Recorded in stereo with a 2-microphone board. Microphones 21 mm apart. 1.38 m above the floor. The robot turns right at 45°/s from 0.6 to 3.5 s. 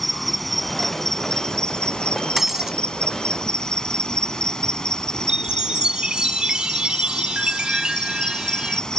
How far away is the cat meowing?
I don't hear a cat meowing.